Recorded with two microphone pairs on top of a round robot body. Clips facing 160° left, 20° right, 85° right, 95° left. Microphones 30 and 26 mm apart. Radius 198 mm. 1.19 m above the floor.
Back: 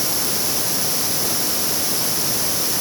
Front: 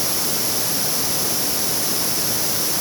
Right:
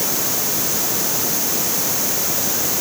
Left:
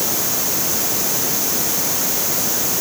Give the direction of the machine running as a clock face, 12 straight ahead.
No machine running in this recording.